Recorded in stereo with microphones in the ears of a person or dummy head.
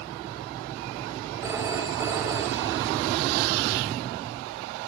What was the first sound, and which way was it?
A phone ringing, 20° right (ahead or behind).